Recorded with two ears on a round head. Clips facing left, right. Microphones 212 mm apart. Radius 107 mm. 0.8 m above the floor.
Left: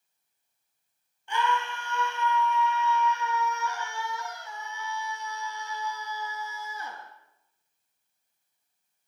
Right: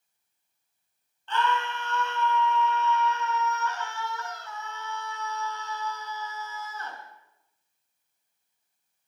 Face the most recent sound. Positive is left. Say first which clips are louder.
# right 1 dB
turn(degrees=15)  # may be behind; listen again after turning